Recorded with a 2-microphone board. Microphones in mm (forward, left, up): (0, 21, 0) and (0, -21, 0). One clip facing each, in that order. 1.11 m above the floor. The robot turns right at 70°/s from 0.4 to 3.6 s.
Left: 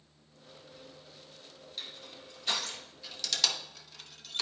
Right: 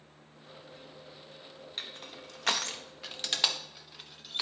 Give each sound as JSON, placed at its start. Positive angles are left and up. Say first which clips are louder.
{"t": 1.8, "sound": "crushing", "louder": "right 2 dB", "side_deg": -40, "distance_m": 0.7}